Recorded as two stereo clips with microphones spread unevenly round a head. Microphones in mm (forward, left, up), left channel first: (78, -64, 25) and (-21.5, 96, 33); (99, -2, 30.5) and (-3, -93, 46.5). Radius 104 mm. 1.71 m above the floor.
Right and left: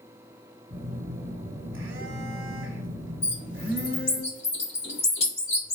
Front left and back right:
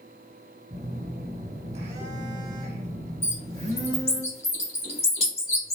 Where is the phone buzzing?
165° left, 0.9 m.